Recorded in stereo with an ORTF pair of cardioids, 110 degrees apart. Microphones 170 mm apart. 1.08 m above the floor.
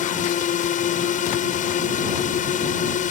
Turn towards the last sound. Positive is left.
turn(degrees=50)